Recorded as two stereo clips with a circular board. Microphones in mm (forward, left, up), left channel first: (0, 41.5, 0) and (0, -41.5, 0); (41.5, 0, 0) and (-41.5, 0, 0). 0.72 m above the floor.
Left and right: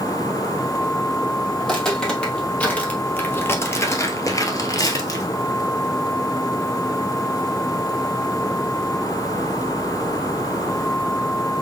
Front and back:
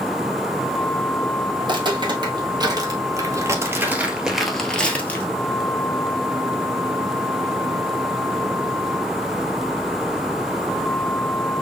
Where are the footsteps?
175° left, 1.8 m; by 5.2 s 60° left, 1.1 m.